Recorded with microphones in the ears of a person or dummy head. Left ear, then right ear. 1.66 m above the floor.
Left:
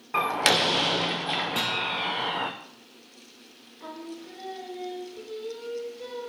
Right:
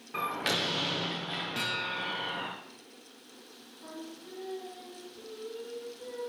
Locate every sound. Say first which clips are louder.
0.1 s a door slam: left 8 dB; 30° left (ahead or behind), 0.6 m
1.6 s a guitar: left 6 dB; 25° left (ahead or behind), 1.9 m
3.8 s singing: left 6 dB; 65° left (ahead or behind), 2 m